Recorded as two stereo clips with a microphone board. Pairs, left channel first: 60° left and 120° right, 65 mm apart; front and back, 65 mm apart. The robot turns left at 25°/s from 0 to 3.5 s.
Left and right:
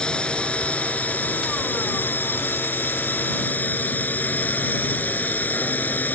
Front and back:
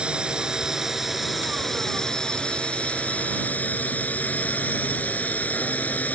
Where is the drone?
120° left; by 6.2 s 35° left.